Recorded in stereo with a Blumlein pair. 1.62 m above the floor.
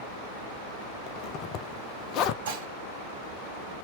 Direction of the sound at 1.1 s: 35° left.